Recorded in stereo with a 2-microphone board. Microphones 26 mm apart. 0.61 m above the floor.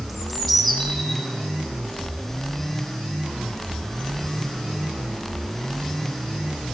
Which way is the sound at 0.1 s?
10° left (ahead or behind).